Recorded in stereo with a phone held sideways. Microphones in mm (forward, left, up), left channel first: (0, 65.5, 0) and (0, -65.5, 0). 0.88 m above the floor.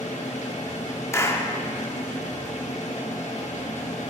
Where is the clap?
20° left (ahead or behind), 1.1 m.